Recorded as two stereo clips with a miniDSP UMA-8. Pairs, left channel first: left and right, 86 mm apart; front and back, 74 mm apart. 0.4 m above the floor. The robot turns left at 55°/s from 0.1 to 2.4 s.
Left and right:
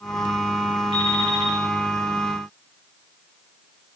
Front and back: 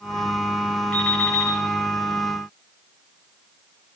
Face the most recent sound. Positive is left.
turn(degrees=5)